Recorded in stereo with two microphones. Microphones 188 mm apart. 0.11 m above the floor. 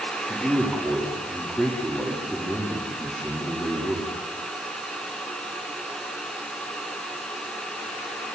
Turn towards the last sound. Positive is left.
turn(degrees=5)  # may be behind; listen again after turning